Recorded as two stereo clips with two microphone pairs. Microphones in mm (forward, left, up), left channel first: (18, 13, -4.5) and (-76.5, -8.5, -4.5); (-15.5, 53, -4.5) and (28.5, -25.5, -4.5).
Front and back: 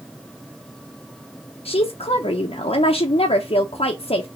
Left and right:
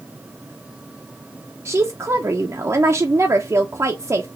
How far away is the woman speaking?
About 0.7 m.